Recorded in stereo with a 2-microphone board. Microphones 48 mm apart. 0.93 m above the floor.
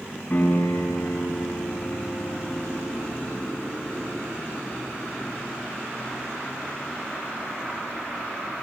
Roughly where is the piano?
Left.